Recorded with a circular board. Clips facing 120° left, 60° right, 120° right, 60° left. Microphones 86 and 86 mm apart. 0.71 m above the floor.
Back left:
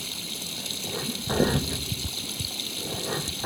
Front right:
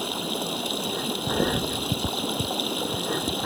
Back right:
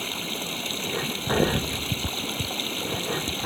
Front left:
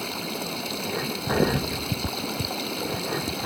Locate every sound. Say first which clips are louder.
0.0 s running water: front right 11 dB, front left 2 dB; 20° right